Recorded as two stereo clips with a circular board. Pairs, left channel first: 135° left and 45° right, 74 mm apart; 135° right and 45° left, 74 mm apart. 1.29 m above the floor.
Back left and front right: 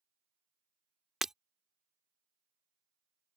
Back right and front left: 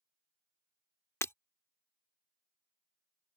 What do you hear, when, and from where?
1.2 s breaking glass: 125° right